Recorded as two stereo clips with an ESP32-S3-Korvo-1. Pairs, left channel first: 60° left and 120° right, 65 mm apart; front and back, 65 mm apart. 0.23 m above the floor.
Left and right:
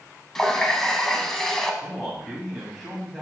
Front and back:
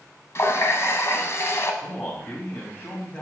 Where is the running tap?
20° right, 1.0 m.